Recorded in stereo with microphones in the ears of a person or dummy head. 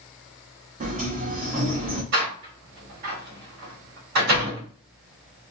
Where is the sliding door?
40° right (ahead or behind), 1.2 m.